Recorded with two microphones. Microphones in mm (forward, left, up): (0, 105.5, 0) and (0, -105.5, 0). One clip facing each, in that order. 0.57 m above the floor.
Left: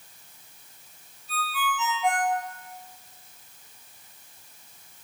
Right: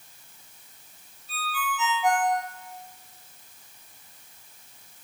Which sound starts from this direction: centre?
A ringtone, at 1.3 s.